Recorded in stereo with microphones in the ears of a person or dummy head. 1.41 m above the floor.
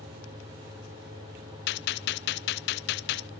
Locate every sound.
1.7 s a gunshot: 50° left (ahead or behind), 0.7 m